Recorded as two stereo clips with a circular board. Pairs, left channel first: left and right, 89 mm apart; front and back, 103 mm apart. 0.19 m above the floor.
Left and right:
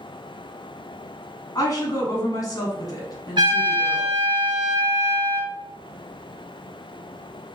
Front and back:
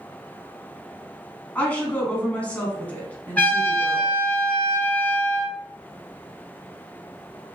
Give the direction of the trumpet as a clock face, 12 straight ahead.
2 o'clock.